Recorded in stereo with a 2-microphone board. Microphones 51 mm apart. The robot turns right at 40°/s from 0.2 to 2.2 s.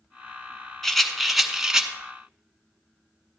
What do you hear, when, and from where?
0.8 s a rattle: 5° left (ahead or behind), 0.8 m; by 1.9 s 15° right (ahead or behind), 0.8 m